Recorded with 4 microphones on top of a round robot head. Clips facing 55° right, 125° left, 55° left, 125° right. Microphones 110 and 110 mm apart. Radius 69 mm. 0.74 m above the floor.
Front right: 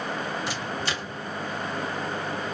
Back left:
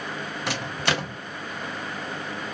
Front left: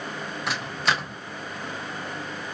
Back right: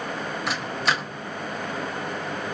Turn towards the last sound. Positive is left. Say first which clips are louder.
# back left 3 dB, even
turn(degrees=145)